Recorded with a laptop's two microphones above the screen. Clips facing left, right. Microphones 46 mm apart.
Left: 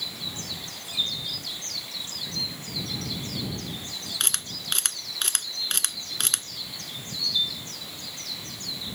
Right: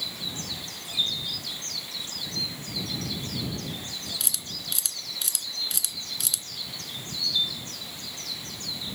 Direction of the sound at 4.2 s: 55° left (ahead or behind).